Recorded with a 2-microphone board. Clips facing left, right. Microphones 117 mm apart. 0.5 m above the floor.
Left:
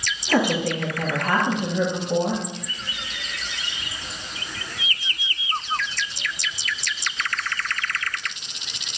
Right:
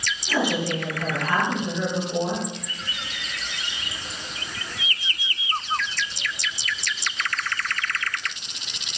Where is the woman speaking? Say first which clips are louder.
Left 3 dB; 65° left (ahead or behind), 7.5 m.